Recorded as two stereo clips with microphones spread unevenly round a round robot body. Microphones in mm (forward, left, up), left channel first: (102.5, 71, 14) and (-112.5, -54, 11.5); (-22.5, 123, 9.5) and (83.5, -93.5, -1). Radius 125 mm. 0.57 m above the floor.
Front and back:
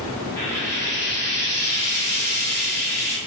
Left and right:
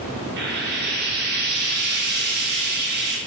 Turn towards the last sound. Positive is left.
turn(degrees=-45)